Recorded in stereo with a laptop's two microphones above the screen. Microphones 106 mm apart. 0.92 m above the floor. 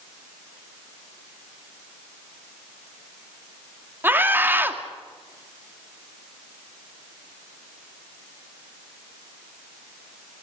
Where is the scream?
20° right (ahead or behind), 2.5 m.